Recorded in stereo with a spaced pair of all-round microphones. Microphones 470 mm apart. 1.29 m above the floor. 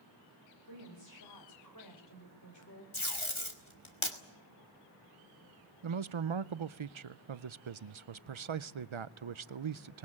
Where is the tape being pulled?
80° left, 2.5 m.